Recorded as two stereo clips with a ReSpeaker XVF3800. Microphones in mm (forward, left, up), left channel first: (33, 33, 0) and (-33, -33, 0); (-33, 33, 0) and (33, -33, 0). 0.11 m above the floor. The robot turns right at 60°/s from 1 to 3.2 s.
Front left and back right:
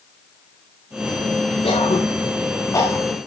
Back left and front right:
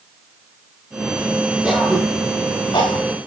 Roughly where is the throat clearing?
Ahead left.